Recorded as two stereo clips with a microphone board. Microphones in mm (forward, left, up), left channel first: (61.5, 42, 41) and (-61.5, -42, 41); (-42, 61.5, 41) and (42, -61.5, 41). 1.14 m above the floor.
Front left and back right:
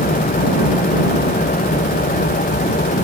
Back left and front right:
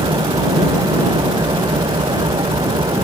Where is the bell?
I don't hear a bell.